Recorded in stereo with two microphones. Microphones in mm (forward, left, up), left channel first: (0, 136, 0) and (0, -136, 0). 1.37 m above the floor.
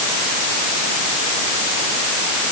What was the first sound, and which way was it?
Only background noise.